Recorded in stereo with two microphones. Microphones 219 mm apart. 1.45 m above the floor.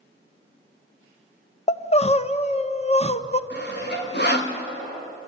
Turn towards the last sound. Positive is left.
turn(degrees=50)  # may be behind; listen again after turning